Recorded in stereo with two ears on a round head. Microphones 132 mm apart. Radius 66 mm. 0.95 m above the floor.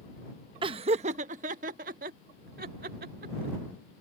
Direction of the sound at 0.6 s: 35° right (ahead or behind).